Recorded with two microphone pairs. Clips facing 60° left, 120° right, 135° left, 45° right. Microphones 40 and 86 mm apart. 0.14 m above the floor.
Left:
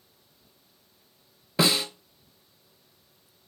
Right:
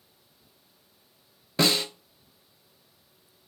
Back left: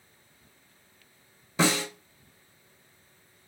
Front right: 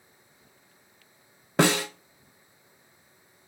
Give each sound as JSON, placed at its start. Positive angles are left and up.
{"t": 1.6, "sound": "a snare drum", "azimuth_deg": -30, "distance_m": 0.6}